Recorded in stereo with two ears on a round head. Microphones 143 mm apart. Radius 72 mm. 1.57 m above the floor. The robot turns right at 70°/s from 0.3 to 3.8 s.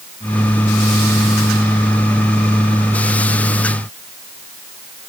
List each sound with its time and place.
Only background noise.